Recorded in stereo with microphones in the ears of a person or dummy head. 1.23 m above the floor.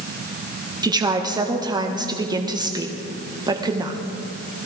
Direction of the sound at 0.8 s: 20° right (ahead or behind).